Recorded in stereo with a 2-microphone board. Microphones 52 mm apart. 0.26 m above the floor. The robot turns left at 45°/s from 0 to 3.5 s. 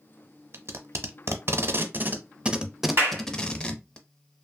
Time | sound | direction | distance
0.5 | tape being pulled | 55° right (ahead or behind) | 0.5 m
3.0 | a clap | 55° right (ahead or behind) | 2 m